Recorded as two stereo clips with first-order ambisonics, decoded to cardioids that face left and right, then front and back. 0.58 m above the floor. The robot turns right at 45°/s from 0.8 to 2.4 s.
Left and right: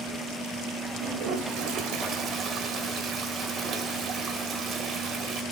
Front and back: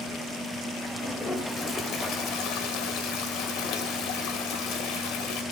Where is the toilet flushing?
95° right, 1.7 m; by 5.4 s 30° right, 1.7 m.